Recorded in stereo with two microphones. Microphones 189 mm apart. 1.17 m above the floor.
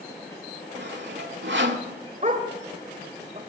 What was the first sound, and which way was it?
Sawing, 75° right (ahead or behind).